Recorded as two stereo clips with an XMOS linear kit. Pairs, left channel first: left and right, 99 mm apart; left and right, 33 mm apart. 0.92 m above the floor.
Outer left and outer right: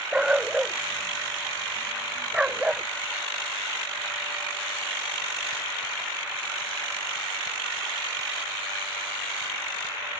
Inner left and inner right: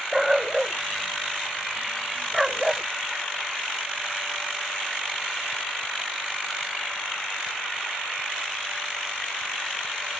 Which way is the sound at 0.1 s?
10° right (ahead or behind).